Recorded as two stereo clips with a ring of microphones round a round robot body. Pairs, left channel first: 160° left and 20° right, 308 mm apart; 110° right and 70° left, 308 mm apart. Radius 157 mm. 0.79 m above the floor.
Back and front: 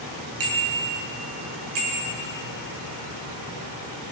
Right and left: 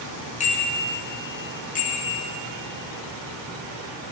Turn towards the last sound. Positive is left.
turn(degrees=-50)